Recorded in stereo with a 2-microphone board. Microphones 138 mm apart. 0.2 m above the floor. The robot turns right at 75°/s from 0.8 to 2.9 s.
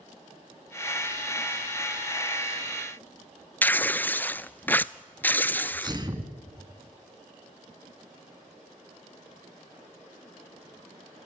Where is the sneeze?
30° right (ahead or behind), 2.5 m.